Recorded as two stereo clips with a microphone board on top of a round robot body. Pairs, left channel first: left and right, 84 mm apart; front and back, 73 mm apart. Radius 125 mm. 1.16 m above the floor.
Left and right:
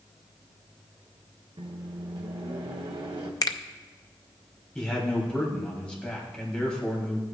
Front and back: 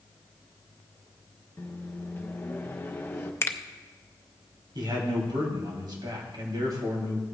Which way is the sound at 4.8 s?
170° left.